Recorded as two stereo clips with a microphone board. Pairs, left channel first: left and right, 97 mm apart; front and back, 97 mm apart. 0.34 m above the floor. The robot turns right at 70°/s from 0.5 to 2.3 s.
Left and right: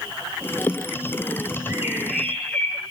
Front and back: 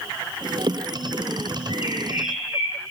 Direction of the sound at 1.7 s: 30° right.